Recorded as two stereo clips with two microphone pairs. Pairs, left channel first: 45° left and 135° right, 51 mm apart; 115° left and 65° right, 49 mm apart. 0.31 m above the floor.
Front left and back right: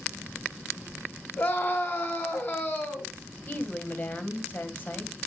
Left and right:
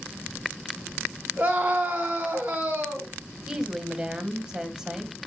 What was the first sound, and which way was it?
A scream, 10° left.